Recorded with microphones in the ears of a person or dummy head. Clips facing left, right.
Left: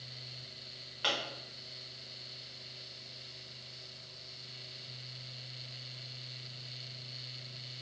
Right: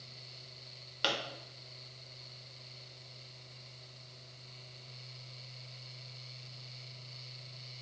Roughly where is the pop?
Right.